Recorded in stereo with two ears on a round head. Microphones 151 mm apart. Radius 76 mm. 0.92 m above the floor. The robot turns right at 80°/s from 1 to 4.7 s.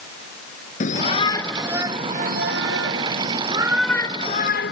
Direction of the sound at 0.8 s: 135° left.